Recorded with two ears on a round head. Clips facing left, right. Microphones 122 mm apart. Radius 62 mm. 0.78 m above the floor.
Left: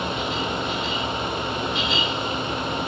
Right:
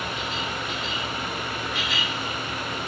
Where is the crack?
No crack in this recording.